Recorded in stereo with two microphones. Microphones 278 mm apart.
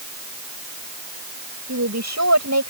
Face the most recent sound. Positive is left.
turn(degrees=-75)  # may be behind; listen again after turning